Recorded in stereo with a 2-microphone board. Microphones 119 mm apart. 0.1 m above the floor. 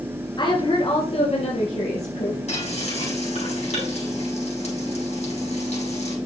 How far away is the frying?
About 6 m.